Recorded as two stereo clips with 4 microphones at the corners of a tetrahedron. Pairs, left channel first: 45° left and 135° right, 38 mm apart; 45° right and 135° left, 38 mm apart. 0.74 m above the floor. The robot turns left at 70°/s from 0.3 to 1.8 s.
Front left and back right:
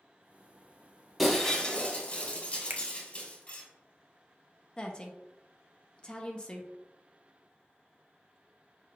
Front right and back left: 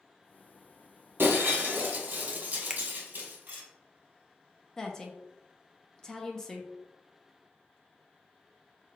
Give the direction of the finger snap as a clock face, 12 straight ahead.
5 o'clock.